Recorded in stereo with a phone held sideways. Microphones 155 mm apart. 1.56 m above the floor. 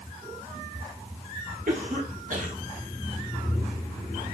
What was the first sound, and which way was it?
A cough, 60° right (ahead or behind).